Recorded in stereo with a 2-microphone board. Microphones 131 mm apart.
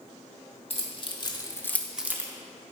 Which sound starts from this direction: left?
Keys jangling, at 0.7 s.